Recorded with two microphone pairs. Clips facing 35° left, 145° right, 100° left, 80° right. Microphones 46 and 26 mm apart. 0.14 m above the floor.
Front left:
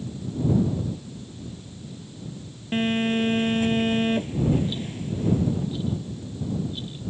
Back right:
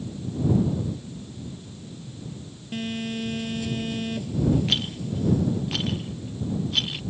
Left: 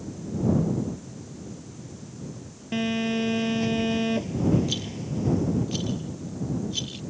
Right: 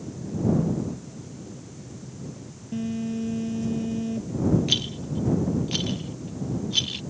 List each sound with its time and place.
2.7 s a phone buzzing: 85° left
4.7 s a rattle: 140° right